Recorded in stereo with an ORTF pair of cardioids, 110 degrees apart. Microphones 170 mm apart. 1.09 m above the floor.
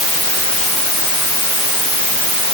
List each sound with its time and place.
Only background noise.